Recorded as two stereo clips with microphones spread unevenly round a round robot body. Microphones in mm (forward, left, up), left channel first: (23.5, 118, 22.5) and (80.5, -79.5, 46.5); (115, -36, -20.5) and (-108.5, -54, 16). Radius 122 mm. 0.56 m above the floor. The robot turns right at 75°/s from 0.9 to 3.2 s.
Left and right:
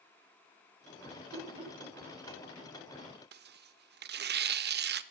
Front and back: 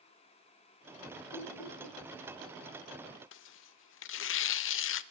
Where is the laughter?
30° right, 2 m; by 2.0 s 20° left, 2 m.